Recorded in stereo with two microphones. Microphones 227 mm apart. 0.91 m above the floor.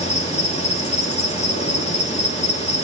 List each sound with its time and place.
0.0 s an insect: 30° left (ahead or behind), 3 m